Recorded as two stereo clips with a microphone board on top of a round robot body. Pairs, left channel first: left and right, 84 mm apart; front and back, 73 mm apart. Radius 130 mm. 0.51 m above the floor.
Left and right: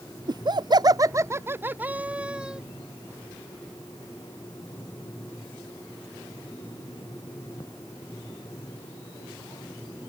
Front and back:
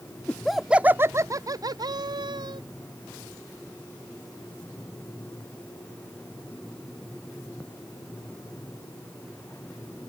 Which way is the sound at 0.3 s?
75° right.